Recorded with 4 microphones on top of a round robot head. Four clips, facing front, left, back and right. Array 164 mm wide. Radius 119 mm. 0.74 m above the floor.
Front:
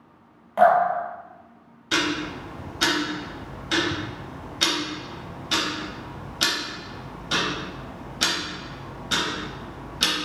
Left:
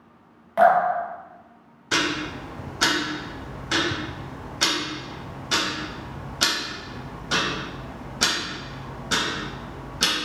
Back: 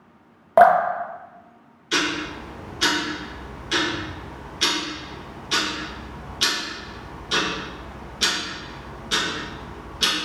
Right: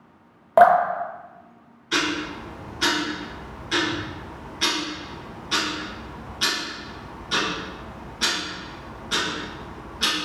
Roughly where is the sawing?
I don't hear sawing.